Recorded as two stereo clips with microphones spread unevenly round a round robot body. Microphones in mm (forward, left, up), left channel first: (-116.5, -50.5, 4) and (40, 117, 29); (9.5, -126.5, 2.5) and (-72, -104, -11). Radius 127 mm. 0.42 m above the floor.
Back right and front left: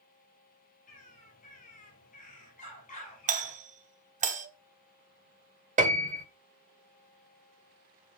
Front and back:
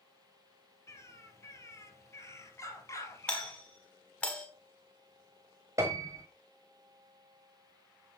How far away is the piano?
About 0.9 m.